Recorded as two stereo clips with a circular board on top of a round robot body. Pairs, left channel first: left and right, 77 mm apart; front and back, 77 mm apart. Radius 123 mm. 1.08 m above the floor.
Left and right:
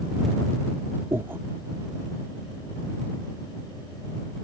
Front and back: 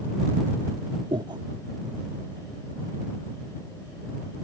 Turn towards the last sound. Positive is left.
turn(degrees=-155)